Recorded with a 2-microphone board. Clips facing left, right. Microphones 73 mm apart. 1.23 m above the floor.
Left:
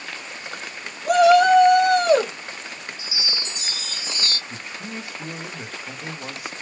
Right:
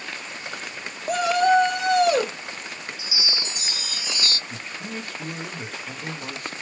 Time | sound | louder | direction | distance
1.1 | a shout | left 6 dB | 80° left | 1.4 m
3.0 | a chime | right 1 dB | 30° left (ahead or behind) | 1.1 m
4.5 | a man speaking | even | 10° left (ahead or behind) | 0.6 m